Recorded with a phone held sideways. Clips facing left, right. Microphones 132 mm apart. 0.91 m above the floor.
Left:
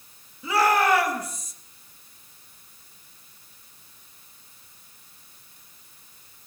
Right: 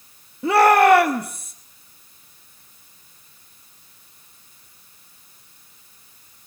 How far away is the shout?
About 1.7 m.